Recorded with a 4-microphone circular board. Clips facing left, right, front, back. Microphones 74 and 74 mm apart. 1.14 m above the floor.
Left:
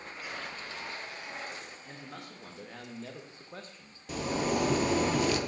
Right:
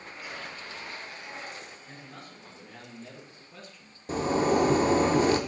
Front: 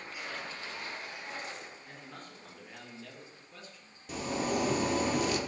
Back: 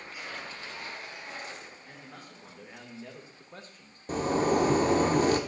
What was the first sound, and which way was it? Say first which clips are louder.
A man speaking: left 1 dB, even; 90° left.